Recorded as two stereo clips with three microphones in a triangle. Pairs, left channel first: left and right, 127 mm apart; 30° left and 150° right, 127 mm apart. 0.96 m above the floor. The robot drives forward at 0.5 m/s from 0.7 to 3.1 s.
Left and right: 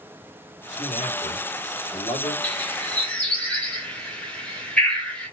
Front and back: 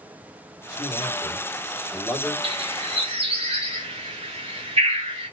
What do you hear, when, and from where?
0.7 s a man speaking: 85° left, 1.9 m; by 2.3 s 110° left, 2 m
2.4 s a bird: 170° left, 1.3 m